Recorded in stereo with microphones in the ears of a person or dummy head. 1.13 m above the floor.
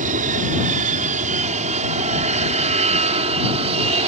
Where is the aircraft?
40° right (ahead or behind); by 4.1 s 30° right (ahead or behind).